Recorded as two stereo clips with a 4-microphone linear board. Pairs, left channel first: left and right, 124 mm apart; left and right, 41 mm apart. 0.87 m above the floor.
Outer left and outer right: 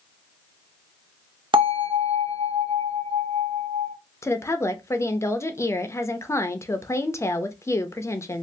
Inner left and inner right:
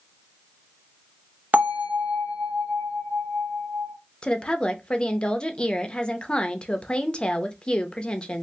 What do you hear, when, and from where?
1.5 s a bell: 45° right (ahead or behind), 0.8 m
4.2 s a woman speaking: 25° left (ahead or behind), 0.5 m